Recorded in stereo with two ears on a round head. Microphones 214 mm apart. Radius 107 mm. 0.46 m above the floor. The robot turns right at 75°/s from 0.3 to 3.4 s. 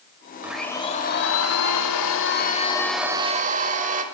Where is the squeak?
I don't hear a squeak.